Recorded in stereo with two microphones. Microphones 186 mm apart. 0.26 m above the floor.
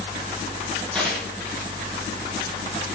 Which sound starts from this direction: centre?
Tearing paper, at 0.9 s.